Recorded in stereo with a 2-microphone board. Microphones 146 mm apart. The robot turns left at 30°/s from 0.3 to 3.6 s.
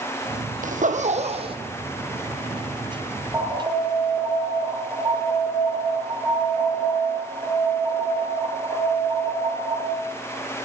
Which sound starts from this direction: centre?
An alarm, at 3.3 s.